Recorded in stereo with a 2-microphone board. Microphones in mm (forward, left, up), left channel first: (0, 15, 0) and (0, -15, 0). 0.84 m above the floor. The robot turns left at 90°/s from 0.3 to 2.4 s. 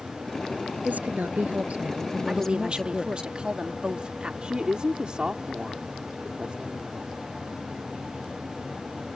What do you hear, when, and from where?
0.8 s a woman speaking: 55° right; by 3.3 s 165° left
2.3 s a woman speaking: 25° right (ahead or behind); by 4.3 s 35° right (ahead or behind)
4.4 s a woman speaking: 35° right (ahead or behind)